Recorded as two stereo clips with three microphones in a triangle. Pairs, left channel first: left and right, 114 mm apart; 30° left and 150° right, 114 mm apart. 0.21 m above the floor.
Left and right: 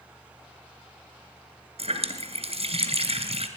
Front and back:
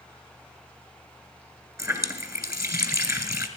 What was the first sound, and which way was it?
A running tap, 90° right.